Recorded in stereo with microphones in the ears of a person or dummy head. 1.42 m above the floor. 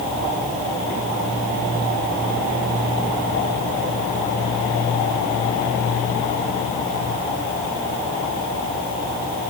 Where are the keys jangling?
No keys jangling in this recording.